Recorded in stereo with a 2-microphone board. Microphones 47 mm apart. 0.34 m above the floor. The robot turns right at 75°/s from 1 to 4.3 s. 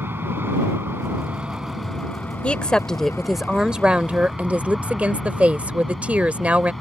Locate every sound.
0.0 s an aircraft: 50° right (ahead or behind); by 6.8 s 5° left (ahead or behind)
2.4 s a woman speaking: 120° left; by 6.7 s 100° right